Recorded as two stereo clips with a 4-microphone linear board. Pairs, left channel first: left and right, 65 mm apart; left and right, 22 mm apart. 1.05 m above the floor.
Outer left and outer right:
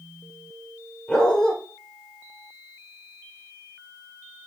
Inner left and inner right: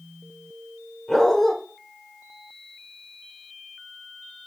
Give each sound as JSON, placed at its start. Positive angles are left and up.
{"t": 1.1, "sound": "a dog barking", "side_deg": 15, "distance_m": 1.2}